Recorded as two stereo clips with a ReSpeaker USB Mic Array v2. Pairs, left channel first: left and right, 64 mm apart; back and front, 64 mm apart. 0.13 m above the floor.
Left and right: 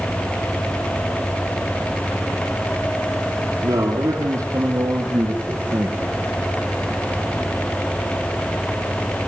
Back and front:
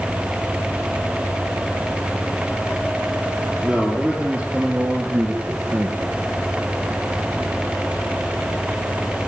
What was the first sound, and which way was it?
A man speaking, 75° right.